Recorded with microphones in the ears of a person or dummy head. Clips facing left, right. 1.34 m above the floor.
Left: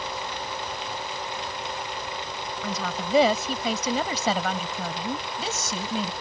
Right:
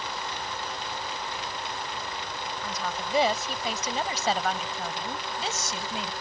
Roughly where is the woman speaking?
Left.